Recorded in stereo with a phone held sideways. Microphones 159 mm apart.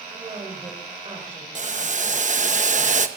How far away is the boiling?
About 0.9 m.